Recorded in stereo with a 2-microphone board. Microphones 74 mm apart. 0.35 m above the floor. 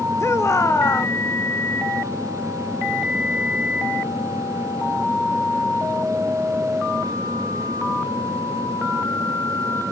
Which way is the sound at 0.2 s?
45° left (ahead or behind).